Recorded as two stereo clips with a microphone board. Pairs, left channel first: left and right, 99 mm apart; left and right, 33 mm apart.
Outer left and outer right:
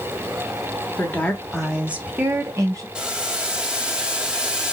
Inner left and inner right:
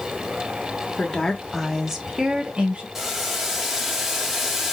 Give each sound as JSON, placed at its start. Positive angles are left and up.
{"t": 1.0, "sound": "a woman speaking", "side_deg": 20, "distance_m": 0.9}
{"t": 3.0, "sound": "boiling", "side_deg": -10, "distance_m": 0.9}